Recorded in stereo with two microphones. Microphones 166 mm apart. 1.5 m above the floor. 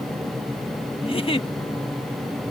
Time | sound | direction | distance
1.0 | a giggle | 35° left (ahead or behind) | ?